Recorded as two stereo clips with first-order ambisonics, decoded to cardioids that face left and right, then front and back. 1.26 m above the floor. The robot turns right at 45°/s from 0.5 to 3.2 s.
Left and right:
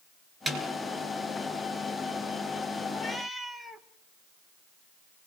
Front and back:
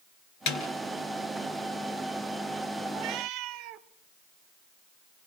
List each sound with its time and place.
0.5 s a snare drum: 15° right, 3.5 m; by 0.6 s 10° right, 3.5 m
2.9 s a cat meowing: 160° left, 1.1 m; by 3.9 s 175° left, 1.1 m